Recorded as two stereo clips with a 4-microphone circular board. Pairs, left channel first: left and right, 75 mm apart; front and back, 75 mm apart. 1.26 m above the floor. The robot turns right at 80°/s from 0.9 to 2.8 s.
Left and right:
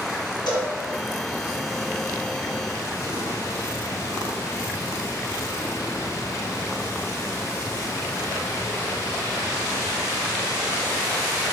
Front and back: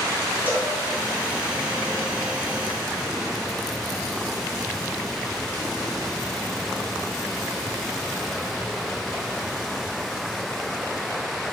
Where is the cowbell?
110° left, 1.2 m.